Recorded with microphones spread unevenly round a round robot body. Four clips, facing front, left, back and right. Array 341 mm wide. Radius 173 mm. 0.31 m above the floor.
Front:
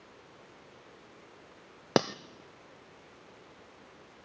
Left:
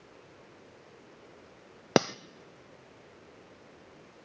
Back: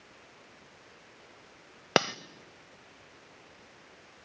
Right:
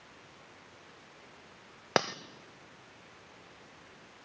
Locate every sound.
2.0 s cutlery clinking: 85° left, 0.6 m